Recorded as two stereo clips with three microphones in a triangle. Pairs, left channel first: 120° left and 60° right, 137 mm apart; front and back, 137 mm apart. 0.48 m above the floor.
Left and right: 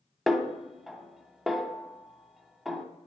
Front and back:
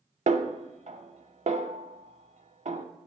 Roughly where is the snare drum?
Behind right.